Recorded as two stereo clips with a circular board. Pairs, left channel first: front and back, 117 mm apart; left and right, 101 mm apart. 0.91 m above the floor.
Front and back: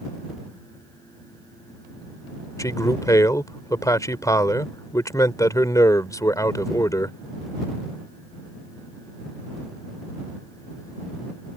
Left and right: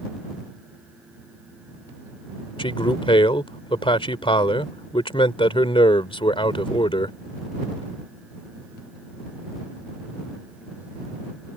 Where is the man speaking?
60° left.